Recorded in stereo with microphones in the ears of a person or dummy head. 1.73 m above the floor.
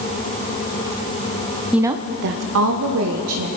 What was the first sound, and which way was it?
A woman speaking, centre (ahead or behind).